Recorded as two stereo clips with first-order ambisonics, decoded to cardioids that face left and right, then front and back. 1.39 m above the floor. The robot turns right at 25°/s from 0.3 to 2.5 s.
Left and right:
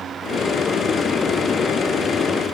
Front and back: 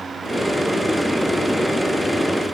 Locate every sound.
Only background noise.